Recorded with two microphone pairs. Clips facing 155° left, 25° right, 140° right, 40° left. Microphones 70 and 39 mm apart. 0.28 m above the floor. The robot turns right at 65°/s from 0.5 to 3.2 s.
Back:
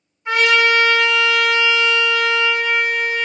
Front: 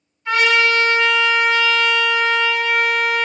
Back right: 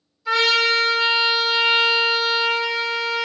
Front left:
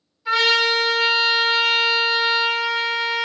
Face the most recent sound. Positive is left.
turn(degrees=-90)